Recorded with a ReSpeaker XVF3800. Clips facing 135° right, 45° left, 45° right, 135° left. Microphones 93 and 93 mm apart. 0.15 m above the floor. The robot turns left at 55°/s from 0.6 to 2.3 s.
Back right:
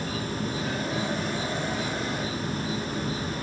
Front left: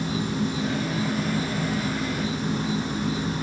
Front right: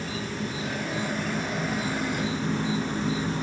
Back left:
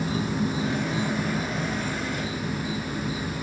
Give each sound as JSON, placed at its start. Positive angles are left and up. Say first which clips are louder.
{"t": 0.0, "sound": "an insect", "louder": "front left 4 dB, back left 6 dB", "azimuth_deg": 95, "distance_m": 1.2}